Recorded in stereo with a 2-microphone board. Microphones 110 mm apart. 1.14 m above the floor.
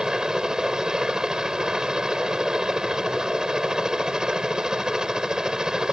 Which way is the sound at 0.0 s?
5° right (ahead or behind).